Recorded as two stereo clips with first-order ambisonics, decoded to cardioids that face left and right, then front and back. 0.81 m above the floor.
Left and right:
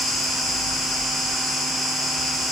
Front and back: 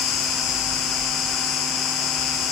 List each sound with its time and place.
0.0 s an insect: 10° left, 6 m